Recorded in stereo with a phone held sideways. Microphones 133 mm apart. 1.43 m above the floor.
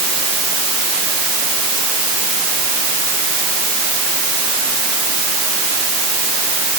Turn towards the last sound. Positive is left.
No sound to turn to.